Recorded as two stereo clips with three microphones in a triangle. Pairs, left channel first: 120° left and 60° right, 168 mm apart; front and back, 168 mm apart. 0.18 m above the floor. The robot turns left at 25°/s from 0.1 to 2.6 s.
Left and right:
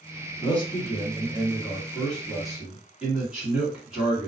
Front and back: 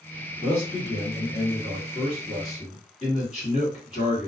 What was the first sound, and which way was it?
A man speaking, 75° left.